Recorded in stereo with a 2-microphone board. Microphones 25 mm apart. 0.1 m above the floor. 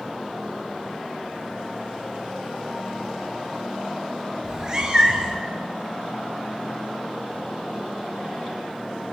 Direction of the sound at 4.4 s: 30° right (ahead or behind).